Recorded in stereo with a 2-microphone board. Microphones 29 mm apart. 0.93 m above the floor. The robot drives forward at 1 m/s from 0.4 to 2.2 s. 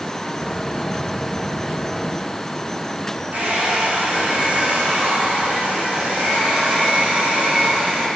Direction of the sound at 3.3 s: 55° right (ahead or behind).